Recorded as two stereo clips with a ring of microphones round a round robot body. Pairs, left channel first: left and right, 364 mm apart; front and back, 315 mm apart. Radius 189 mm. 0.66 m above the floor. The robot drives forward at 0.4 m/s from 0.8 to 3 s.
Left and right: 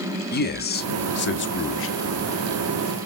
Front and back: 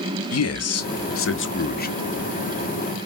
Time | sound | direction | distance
0.3 | a man speaking | 30° left | 1.1 m